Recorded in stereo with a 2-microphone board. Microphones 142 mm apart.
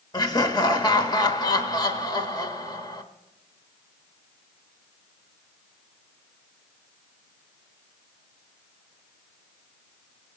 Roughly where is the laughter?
Left.